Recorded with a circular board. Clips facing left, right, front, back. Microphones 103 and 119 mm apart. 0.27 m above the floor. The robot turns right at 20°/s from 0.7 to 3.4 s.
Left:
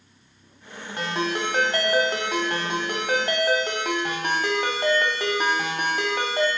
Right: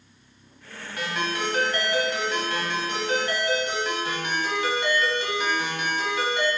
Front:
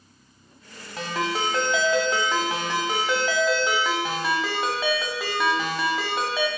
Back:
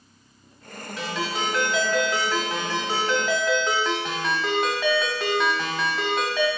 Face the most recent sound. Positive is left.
turn(degrees=85)